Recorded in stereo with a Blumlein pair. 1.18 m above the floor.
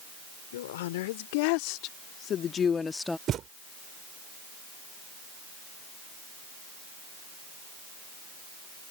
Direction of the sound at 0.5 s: 55° left.